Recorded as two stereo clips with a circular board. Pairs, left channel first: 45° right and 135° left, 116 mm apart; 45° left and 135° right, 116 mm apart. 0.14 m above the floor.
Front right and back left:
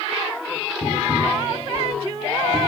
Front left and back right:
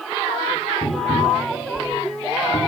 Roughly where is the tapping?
Ahead left.